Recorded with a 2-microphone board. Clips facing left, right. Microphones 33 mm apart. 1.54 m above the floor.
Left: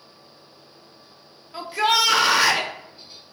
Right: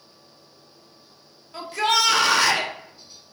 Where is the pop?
No pop in this recording.